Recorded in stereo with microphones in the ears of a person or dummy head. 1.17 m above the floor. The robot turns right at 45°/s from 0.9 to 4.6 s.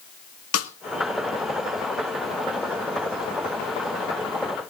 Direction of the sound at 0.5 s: 90° left.